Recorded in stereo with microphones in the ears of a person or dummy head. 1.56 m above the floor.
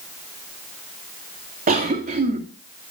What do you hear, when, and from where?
1.7 s a cough: 40° right (ahead or behind), 2 m